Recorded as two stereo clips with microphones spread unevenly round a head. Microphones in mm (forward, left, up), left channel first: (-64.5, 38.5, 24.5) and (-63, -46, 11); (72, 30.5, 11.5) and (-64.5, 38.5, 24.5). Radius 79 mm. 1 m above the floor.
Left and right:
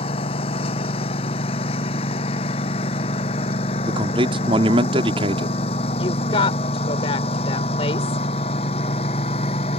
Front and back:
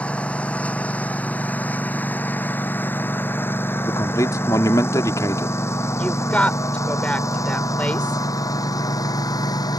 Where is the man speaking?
75° right.